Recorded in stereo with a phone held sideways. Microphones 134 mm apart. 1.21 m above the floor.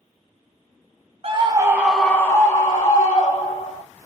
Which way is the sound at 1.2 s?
45° right (ahead or behind).